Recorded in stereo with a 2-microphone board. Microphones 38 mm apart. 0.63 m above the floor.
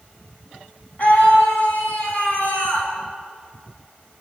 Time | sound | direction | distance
1.0 | a scream | 40° left (ahead or behind) | 7 m